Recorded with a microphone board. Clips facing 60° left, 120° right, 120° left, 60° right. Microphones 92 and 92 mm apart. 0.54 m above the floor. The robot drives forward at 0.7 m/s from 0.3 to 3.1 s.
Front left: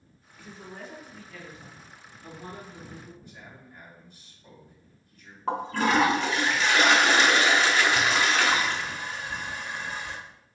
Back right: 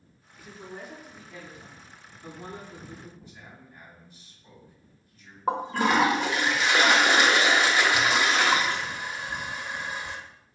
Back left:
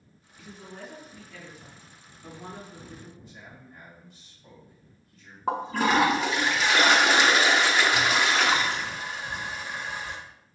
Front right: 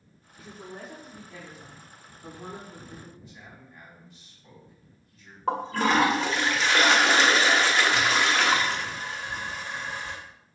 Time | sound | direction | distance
0.4 | a woman speaking | 35° right | 1.6 m
3.2 | a man speaking | 100° left | 2.5 m
5.5 | a toilet flushing | 175° right | 0.9 m